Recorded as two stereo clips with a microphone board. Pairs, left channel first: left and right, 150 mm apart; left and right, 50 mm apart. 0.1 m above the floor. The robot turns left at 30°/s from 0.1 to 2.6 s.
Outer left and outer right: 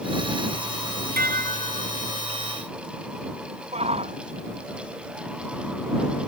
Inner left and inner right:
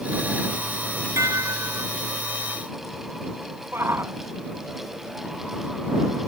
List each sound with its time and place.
1.2 s dishes clattering: 80° right; by 1.9 s 65° right (ahead or behind)
3.7 s a shout: 45° right (ahead or behind)